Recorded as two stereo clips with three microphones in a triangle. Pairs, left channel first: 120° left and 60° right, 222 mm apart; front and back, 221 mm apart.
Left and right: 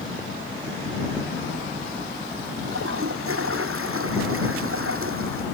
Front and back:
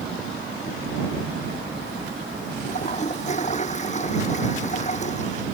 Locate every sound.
2.7 s a toilet flushing: 55° right